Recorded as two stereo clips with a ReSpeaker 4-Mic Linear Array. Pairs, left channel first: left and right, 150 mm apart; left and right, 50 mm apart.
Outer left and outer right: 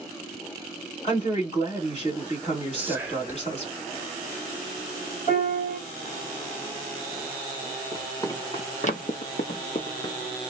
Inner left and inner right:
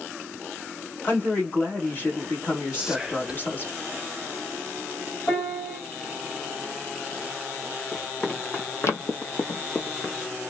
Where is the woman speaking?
40° left (ahead or behind), 1.5 m.